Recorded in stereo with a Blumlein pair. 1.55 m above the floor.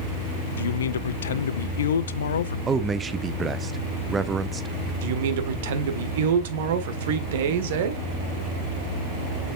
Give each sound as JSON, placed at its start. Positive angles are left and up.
{"t": 0.6, "sound": "a man speaking", "azimuth_deg": 65, "distance_m": 0.6}
{"t": 2.7, "sound": "a man speaking", "azimuth_deg": -15, "distance_m": 0.9}
{"t": 5.0, "sound": "a man speaking", "azimuth_deg": -55, "distance_m": 1.5}